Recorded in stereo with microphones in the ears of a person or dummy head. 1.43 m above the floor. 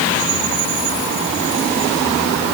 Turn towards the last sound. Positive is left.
No sound to turn to.